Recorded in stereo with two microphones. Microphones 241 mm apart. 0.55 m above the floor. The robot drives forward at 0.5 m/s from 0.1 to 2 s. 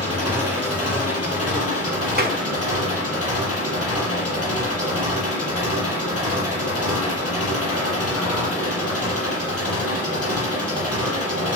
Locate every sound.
0.0 s an engine running: 80° left, 6.5 m; by 11.6 s 70° left (ahead or behind), 6.5 m
2.2 s a clap: 40° right (ahead or behind), 1.3 m